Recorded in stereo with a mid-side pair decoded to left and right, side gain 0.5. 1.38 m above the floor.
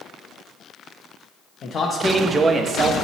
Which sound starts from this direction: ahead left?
A man speaking, at 1.6 s.